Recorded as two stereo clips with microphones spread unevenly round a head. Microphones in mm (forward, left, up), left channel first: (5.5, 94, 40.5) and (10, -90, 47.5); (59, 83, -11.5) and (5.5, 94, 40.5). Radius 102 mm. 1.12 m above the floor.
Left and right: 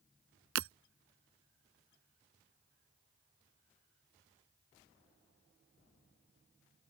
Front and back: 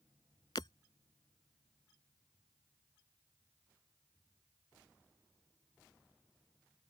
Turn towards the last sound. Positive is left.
turn(degrees=-80)